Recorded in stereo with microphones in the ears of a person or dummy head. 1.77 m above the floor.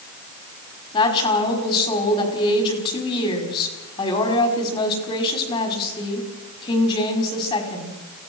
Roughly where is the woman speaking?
Left.